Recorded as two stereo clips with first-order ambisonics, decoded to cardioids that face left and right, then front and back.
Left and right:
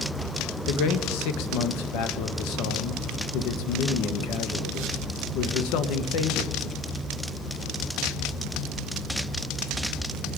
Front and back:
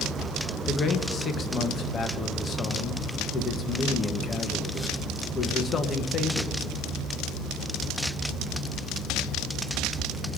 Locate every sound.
0.7 s a man speaking: 70° left, 1.0 m